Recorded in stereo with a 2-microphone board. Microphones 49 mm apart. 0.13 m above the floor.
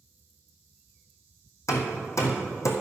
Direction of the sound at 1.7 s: 70° left (ahead or behind).